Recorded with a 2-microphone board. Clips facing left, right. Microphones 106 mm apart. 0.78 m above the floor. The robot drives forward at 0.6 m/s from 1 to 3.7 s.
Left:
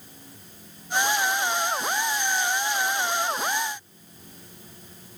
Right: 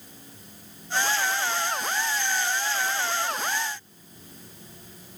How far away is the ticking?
No ticking in this recording.